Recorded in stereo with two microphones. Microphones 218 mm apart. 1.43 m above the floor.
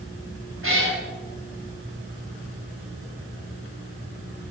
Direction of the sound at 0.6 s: 75° right (ahead or behind).